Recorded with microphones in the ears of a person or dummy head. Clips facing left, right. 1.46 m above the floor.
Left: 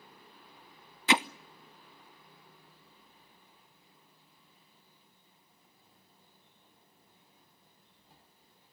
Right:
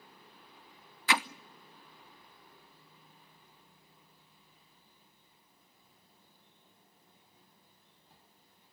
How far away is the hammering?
About 0.6 m.